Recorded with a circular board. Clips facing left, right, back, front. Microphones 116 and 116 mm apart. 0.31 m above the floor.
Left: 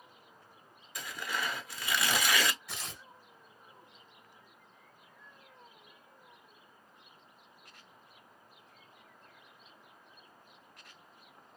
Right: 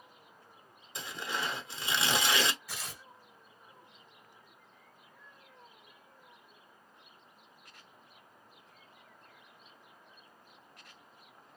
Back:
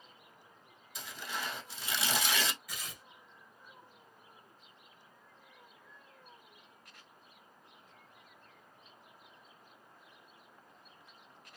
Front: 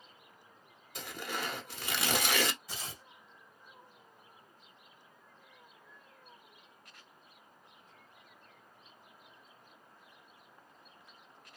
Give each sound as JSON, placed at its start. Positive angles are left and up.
{"t": 0.9, "sound": "tearing paper", "azimuth_deg": -25, "distance_m": 0.6}
{"t": 2.7, "sound": "tearing paper", "azimuth_deg": 0, "distance_m": 1.3}